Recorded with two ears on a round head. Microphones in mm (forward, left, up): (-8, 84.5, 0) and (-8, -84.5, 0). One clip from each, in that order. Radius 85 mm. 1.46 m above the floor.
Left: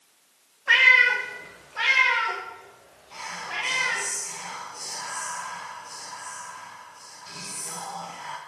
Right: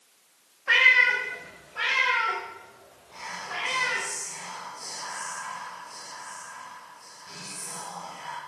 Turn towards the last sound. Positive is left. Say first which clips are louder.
# left 2 dB
turn(degrees=75)  # may be behind; listen again after turning